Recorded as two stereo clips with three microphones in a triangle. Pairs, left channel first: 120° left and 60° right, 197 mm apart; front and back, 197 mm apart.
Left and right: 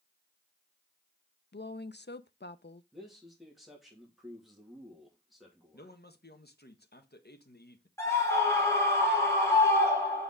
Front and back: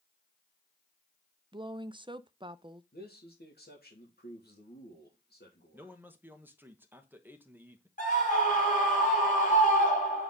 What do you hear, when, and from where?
1.5 s a woman speaking: 115° left, 0.6 m
2.9 s a man speaking: 30° left, 2.5 m
5.7 s a man speaking: 100° left, 1.2 m
8.0 s a scream: 45° left, 4 m